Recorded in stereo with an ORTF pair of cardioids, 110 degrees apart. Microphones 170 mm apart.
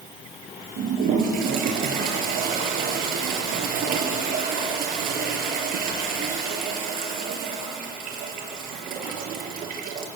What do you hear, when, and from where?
0.8 s a toilet flushing: 60° right, 5.5 m